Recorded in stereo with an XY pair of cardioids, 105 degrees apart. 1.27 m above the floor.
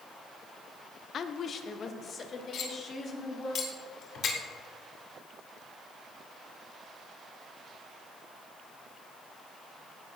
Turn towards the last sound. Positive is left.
turn(degrees=65)